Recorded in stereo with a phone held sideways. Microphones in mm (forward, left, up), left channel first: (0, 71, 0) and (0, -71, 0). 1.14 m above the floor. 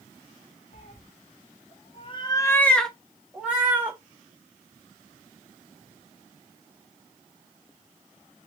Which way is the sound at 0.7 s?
55° left (ahead or behind).